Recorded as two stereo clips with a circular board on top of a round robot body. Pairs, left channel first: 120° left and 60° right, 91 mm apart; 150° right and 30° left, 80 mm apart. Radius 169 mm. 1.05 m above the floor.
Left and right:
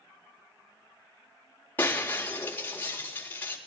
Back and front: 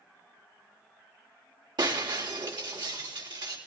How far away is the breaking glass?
About 3.5 m.